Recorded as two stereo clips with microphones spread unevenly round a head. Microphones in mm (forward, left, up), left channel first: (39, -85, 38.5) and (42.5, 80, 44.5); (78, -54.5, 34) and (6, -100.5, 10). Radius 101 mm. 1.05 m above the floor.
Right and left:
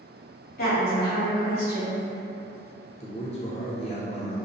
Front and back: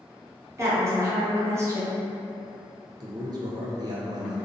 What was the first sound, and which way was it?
A woman speaking, 105° right.